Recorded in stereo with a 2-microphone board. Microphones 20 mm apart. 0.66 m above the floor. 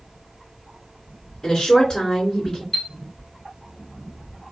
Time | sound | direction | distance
1.4 | a woman speaking | 20° left (ahead or behind) | 2 m
2.7 | a chime | 15° left (ahead or behind) | 0.9 m